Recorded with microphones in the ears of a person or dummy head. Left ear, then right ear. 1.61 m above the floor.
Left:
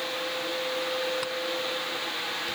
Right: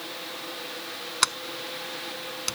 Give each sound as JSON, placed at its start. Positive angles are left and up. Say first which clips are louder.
{"t": 1.2, "sound": "a sliding door", "louder": "right 2 dB", "side_deg": -50}